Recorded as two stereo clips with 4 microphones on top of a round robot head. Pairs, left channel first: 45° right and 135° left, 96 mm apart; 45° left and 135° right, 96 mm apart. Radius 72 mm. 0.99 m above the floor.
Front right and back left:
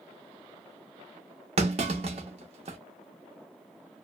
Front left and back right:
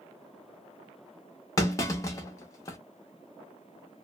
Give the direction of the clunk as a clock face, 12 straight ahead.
9 o'clock.